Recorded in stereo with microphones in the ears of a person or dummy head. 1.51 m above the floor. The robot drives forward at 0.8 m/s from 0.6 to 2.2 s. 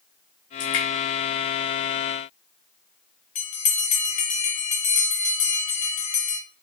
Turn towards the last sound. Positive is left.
turn(degrees=35)  # may be behind; listen again after turning